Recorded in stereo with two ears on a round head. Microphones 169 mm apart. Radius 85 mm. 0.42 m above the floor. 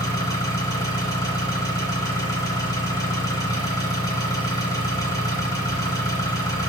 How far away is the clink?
I don't hear a clink.